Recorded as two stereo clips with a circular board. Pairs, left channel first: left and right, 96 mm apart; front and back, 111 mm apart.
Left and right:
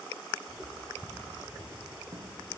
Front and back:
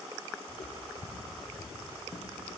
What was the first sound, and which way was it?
Footsteps, 5° left.